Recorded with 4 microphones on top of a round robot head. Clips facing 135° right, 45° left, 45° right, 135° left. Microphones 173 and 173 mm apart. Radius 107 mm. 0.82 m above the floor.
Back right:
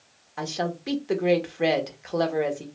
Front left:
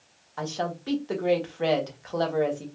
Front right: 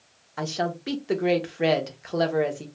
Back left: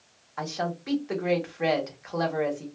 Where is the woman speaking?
70° right, 0.7 m.